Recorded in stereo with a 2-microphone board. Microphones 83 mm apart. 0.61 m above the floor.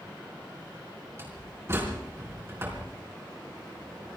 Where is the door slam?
30° right (ahead or behind), 4.5 m.